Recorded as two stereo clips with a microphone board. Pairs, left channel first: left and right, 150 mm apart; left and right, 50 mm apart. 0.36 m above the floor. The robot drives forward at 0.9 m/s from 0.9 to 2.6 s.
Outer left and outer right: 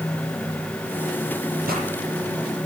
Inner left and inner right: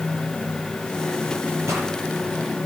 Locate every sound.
1.7 s a pop: 80° right, 9.5 m